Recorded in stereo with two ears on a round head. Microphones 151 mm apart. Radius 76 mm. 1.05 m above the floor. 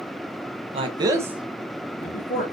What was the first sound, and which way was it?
A man speaking, 35° right (ahead or behind).